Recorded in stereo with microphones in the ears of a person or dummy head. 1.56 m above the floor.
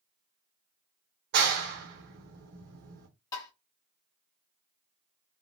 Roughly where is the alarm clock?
No alarm clock in this recording.